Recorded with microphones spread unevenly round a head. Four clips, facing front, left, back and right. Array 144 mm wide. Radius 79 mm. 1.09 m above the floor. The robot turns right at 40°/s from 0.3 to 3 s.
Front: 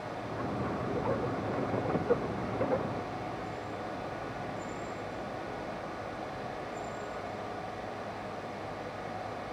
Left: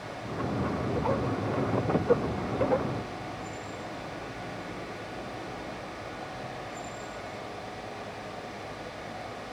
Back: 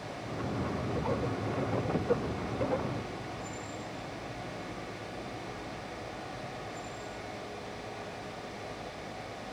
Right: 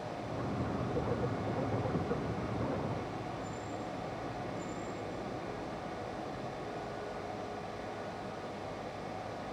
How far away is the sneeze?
No sneeze in this recording.